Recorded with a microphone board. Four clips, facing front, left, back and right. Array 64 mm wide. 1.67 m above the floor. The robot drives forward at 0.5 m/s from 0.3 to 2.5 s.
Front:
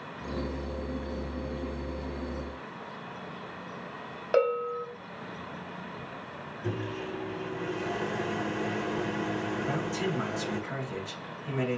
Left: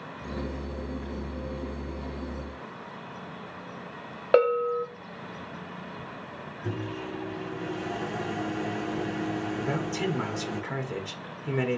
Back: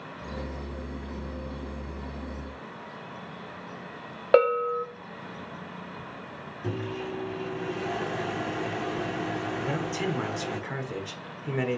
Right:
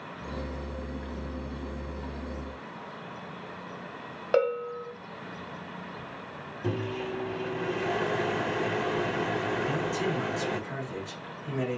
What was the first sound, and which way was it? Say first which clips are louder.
A bell: left 5 dB, back 5 dB; 150° left.